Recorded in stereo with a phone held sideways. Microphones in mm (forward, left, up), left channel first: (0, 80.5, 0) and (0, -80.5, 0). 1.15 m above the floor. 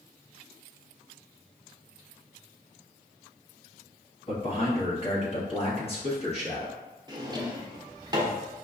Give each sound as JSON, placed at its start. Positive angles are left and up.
{"t": 4.3, "sound": "a man speaking", "side_deg": 40, "distance_m": 1.2}
{"t": 7.1, "sound": "a drawer", "side_deg": -25, "distance_m": 0.6}